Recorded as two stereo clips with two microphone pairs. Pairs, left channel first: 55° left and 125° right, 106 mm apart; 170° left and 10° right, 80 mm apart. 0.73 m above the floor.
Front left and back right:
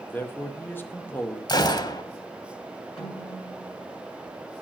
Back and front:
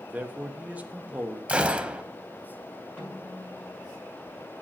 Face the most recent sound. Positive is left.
turn(degrees=95)